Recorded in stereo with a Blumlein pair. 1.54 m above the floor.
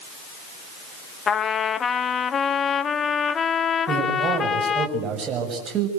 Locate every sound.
1.3 s a trumpet: 20° left, 0.9 m
3.9 s a man speaking: 25° right, 7.5 m